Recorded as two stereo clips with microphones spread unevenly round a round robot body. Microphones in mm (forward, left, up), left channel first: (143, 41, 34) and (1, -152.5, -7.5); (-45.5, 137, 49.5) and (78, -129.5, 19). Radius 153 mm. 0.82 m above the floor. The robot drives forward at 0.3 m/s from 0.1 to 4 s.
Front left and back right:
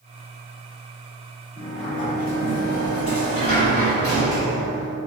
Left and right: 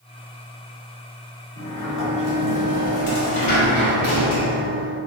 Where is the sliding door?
90° left, 1.0 m; by 5.0 s 130° left, 1.3 m.